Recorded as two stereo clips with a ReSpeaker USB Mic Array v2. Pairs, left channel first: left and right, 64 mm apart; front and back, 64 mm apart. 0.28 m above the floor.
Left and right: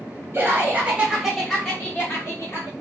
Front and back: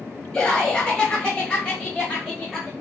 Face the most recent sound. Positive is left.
turn(degrees=75)